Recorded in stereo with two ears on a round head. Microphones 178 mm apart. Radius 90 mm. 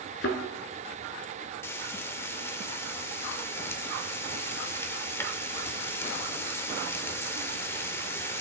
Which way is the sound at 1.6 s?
10° left (ahead or behind).